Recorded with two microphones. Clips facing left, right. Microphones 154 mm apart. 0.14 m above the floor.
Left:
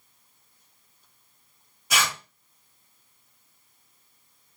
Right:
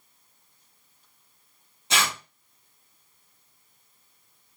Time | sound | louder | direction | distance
1.9 | tearing paper | even | 25° right (ahead or behind) | 1.3 m